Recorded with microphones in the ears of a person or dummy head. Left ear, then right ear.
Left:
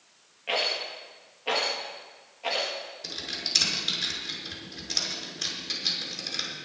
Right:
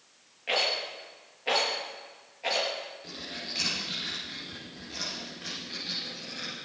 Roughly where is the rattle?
Centre.